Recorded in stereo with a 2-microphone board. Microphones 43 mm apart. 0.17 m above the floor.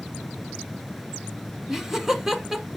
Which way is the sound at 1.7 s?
10° right (ahead or behind).